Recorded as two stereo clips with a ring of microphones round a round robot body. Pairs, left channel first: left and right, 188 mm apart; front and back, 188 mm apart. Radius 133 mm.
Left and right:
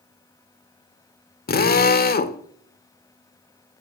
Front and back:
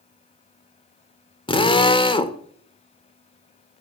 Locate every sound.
1.5 s a drill: 60° left, 1.6 m